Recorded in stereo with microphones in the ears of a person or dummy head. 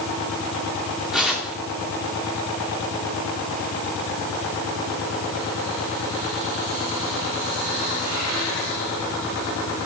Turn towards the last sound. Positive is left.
turn(degrees=-5)  # may be behind; listen again after turning